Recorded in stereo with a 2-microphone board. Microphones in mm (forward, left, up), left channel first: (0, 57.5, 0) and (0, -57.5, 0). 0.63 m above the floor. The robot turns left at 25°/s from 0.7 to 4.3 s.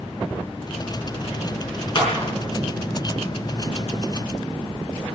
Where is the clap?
45° left (ahead or behind), 5.5 m; by 2.3 s 35° left (ahead or behind), 5.5 m.